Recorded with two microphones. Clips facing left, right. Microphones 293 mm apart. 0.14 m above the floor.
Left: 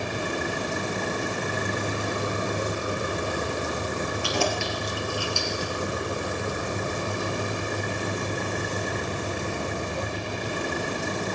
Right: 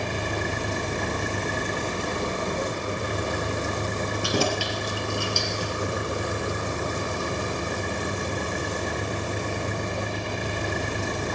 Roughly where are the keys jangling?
Right.